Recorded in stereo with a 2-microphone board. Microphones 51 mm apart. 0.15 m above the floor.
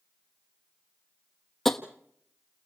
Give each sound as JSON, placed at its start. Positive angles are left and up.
{"t": 1.6, "sound": "tapping", "side_deg": 10, "distance_m": 1.4}